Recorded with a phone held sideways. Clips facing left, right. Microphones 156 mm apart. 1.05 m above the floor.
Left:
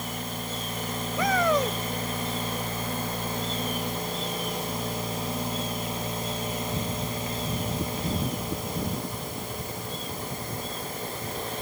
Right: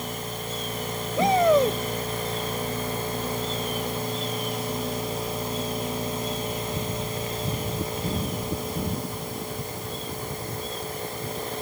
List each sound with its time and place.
1.2 s a shout: 25° right (ahead or behind)